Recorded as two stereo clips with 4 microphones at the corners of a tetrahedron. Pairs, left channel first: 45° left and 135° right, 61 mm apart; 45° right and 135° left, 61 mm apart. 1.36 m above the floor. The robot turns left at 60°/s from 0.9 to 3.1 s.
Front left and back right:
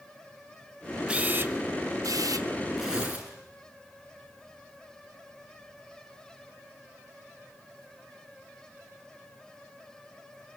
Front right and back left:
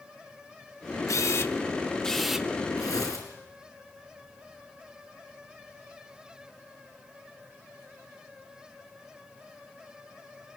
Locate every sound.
1.1 s a camera shutter: 65° right, 1.0 m; by 2.5 s 150° right, 1.0 m
2.8 s tearing paper: 50° right, 7 m; by 3.3 s 70° right, 7 m